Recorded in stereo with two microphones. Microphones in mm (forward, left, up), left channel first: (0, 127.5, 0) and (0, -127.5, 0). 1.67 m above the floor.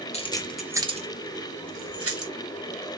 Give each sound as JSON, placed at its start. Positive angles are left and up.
{"t": 0.1, "sound": "keys jangling", "side_deg": 25, "distance_m": 0.7}